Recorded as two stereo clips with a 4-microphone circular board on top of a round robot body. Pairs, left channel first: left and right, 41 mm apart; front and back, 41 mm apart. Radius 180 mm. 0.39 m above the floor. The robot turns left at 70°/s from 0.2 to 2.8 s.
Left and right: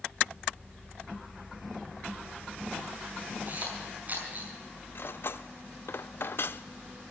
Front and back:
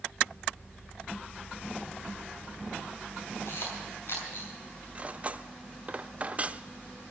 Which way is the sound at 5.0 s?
120° left.